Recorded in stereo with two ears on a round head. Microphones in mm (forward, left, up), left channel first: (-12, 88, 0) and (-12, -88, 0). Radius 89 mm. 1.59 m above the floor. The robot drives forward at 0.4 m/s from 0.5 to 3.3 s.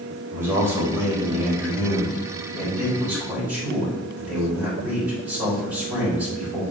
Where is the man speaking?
10° right (ahead or behind), 3.5 m.